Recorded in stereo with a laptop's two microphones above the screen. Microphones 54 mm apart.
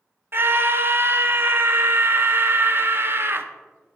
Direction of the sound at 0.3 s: 40° right (ahead or behind).